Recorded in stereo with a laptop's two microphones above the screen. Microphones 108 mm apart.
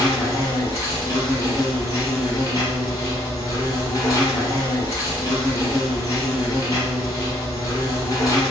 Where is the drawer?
I don't hear a drawer.